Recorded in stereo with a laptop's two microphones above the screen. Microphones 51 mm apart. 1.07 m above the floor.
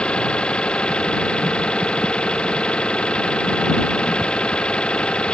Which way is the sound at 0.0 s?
20° left (ahead or behind).